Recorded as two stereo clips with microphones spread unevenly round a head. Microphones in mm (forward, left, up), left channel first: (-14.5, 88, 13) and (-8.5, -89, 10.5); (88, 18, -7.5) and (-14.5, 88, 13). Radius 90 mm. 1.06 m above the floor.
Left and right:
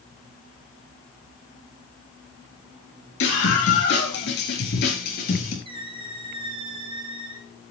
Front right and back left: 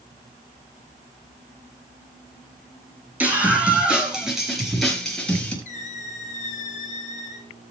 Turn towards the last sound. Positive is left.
turn(degrees=-30)